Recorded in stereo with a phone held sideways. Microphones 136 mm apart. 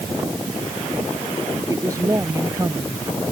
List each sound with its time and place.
1.7 s a woman speaking: 25° right (ahead or behind)